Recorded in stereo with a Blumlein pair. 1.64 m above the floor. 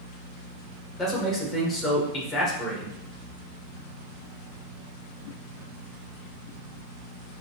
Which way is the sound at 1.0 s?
20° left.